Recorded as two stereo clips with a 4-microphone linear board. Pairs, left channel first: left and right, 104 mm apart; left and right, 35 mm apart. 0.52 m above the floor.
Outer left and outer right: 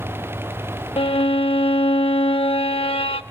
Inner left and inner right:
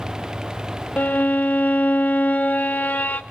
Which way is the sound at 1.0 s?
70° left (ahead or behind).